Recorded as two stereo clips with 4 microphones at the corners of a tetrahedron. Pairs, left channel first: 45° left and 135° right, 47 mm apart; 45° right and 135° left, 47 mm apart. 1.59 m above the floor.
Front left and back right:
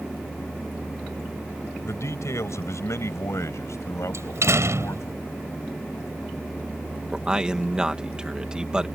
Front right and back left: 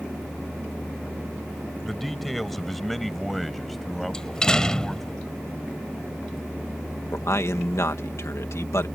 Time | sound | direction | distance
1.8 | a man speaking | 40° left | ?
4.1 | a door slam | 125° right | ?
7.1 | a man speaking | 60° right | ?